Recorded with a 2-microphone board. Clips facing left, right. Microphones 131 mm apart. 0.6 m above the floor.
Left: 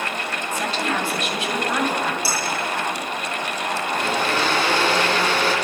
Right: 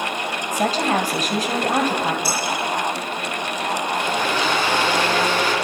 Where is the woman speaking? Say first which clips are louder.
Right 5 dB; 40° right (ahead or behind), 3.5 m.